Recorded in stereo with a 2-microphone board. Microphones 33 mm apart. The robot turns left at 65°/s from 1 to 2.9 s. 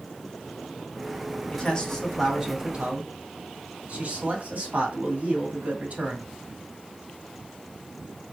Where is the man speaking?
40° left, 2 m; by 6.3 s 50° right, 2 m.